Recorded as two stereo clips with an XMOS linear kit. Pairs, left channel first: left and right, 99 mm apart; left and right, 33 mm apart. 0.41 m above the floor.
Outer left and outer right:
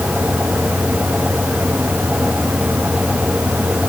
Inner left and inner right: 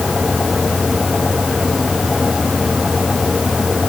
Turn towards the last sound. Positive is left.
No sound to turn to.